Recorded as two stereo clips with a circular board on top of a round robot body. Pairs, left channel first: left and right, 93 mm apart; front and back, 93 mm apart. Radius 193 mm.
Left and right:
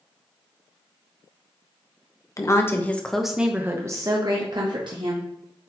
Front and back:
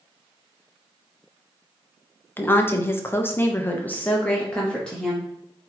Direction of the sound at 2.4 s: 55° left.